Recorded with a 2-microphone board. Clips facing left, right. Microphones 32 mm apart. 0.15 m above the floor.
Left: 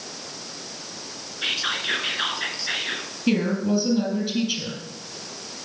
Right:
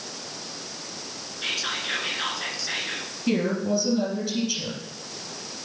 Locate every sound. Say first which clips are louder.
1.4 s whispering: left 3 dB; 25° left (ahead or behind), 1.5 m
3.3 s a woman speaking: left 2 dB; 25° left (ahead or behind), 3.5 m